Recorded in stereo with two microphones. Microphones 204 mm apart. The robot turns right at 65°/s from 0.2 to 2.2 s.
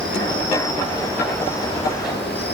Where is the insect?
75° right, 2.0 m; by 2.5 s 55° left, 2.0 m.